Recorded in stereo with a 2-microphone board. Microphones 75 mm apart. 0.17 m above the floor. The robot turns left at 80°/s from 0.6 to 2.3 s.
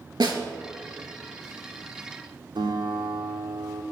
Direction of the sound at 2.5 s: 80° right.